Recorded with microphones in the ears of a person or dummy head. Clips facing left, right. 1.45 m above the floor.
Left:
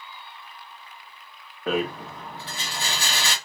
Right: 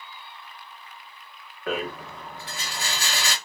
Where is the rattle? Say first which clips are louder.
Left 4 dB; 25° left (ahead or behind), 1.0 m.